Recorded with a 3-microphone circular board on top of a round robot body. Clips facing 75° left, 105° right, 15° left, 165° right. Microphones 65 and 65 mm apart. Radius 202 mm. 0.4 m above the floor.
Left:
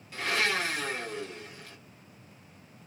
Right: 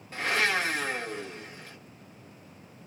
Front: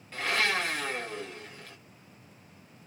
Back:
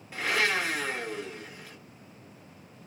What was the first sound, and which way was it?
A blender, 90° right.